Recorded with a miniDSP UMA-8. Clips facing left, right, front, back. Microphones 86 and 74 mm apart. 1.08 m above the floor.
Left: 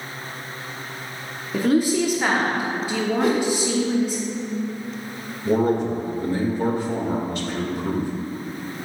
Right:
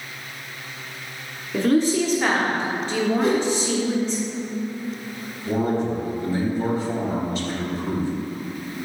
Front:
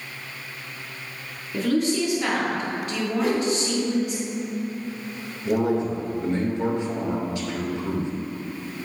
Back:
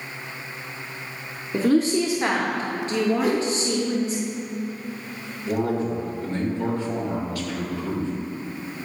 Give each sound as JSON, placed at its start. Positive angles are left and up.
{"t": 1.5, "sound": "a woman speaking", "azimuth_deg": 160, "distance_m": 0.7}
{"t": 3.2, "sound": "a whoosh", "azimuth_deg": 95, "distance_m": 1.5}
{"t": 5.5, "sound": "a man speaking", "azimuth_deg": 65, "distance_m": 1.5}